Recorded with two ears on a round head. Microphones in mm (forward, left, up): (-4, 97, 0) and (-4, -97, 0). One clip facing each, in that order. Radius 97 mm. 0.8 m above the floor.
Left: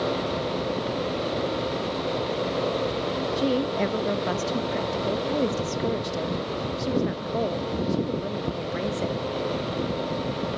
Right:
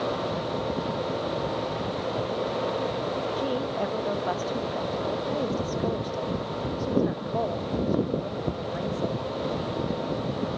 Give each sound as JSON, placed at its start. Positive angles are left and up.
{"t": 3.4, "sound": "a woman speaking", "side_deg": 35, "distance_m": 1.1}